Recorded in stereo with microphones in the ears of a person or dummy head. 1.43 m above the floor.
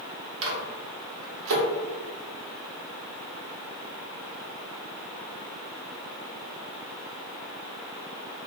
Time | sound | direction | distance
0.4 | a microwave | 75° right (ahead or behind) | 0.7 m